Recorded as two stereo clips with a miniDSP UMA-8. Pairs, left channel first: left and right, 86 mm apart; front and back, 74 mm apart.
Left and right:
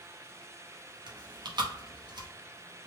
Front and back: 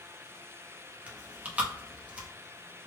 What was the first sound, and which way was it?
Chewing, 110° right.